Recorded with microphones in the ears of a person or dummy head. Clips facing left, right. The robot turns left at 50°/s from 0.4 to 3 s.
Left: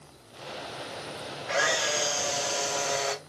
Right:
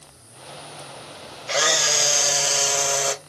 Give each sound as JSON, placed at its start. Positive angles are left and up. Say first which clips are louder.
{"t": 1.5, "sound": "a camera shutter", "louder": "right 4 dB", "azimuth_deg": -45, "distance_m": 0.7}